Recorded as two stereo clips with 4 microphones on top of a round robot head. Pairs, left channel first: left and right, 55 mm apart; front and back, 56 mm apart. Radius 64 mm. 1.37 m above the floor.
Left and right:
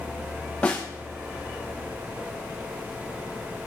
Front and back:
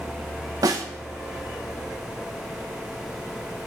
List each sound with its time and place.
0.6 s a snare drum: 165° left, 1.1 m